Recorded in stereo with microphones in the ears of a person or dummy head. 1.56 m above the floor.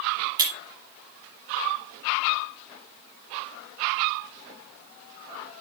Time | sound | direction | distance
0.4 | breaking glass | 15° right (ahead or behind) | 4 m